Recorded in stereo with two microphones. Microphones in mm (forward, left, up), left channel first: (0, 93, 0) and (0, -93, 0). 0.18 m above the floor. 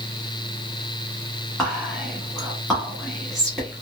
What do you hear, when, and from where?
1.6 s whispering: centre (ahead or behind), 1.2 m